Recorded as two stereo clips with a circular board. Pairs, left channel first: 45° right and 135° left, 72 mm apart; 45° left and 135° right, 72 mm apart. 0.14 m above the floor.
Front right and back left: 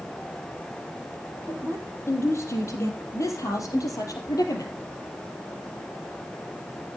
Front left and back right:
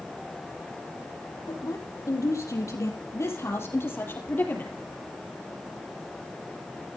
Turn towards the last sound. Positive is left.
turn(degrees=-20)